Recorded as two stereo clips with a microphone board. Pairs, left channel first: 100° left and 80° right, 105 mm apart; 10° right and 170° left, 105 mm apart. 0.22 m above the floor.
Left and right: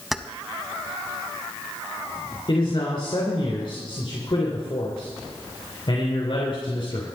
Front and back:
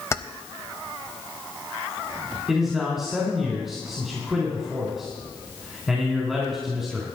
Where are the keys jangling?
5° left, 0.7 m.